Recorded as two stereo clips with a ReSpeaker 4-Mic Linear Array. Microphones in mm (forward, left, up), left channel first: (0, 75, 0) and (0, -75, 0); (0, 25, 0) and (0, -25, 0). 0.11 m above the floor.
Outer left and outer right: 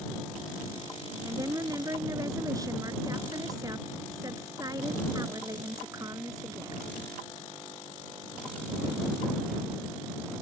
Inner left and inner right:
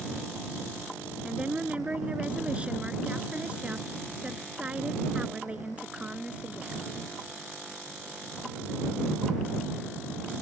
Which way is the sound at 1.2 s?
25° right (ahead or behind).